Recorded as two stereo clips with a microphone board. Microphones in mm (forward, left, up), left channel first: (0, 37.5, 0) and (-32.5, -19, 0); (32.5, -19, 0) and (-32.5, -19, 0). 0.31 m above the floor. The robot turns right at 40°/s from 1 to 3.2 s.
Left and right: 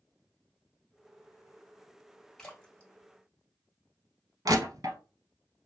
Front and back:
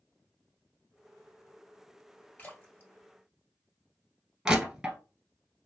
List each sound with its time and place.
2.4 s a splash: 10° right, 1.5 m; by 4.1 s 20° left, 1.5 m
4.5 s crushing: 100° right, 1.1 m